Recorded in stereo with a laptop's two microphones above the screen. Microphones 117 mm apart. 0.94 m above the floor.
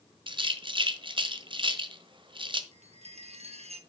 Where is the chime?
65° right (ahead or behind), 1.1 m.